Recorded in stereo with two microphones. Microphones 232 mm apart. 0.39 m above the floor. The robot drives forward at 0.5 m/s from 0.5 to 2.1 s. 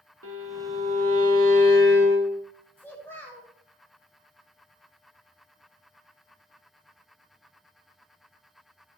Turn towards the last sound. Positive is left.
turn(degrees=10)  # may be behind; listen again after turning